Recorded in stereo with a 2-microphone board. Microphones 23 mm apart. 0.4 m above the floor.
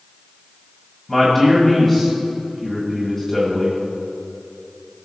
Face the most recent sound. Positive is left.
turn(degrees=0)  # may be behind; listen again after turning